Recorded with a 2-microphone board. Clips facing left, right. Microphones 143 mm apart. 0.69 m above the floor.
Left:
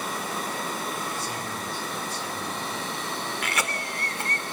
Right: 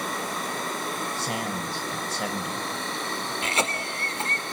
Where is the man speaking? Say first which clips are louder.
Right 3 dB; 75° right (ahead or behind), 4 m.